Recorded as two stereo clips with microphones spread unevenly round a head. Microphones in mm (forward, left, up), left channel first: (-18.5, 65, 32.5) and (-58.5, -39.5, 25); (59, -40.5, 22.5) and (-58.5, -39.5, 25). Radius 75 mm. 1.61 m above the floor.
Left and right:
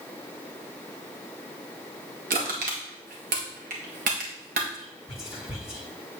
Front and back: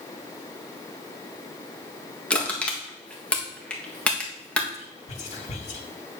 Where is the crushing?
80° right, 1.6 m.